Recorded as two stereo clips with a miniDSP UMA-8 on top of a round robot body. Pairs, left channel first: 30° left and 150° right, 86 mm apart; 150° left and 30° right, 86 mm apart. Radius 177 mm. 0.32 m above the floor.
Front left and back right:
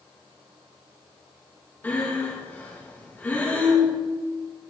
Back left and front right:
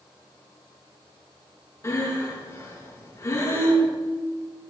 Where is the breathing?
95° left, 4 m.